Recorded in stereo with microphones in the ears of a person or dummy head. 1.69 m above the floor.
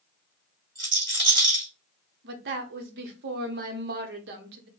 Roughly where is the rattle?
Right.